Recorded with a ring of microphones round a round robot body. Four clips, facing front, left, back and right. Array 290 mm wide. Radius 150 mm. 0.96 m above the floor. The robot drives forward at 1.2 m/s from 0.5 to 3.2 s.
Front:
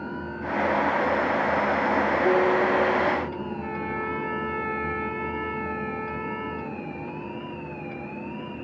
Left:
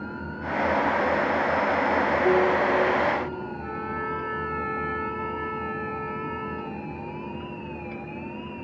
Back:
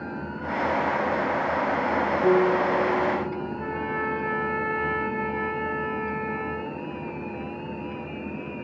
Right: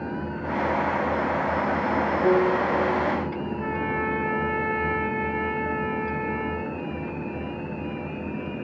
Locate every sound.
2.2 s a guitar: 140° right, 4 m; by 3.5 s 150° right, 5 m
3.6 s a trumpet: 130° right, 5 m